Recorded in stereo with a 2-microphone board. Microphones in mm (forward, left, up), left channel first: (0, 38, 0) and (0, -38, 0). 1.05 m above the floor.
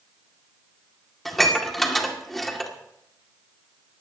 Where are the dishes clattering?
5° left (ahead or behind), 2.0 m.